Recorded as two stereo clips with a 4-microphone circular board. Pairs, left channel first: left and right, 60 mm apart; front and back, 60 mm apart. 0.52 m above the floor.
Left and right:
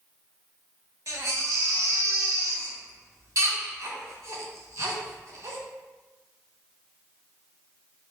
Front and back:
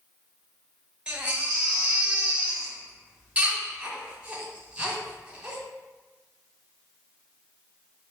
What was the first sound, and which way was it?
A baby crying, 110° right.